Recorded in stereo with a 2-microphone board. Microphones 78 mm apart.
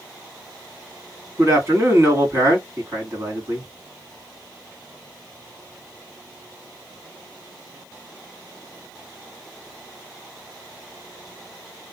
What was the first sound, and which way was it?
A man speaking, 40° right (ahead or behind).